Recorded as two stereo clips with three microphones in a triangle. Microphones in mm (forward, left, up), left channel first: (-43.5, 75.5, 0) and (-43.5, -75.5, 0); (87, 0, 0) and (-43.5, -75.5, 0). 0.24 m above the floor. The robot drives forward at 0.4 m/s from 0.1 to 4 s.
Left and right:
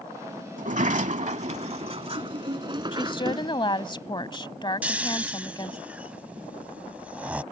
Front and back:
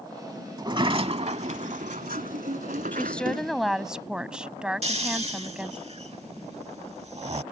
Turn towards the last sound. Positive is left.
turn(degrees=-170)